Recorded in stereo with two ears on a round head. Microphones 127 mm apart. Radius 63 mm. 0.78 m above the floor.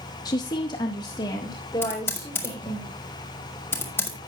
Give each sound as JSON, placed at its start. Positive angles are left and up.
{"t": 0.2, "sound": "a woman speaking", "side_deg": 30, "distance_m": 0.6}
{"t": 1.8, "sound": "typing on a keyboard", "side_deg": 15, "distance_m": 2.0}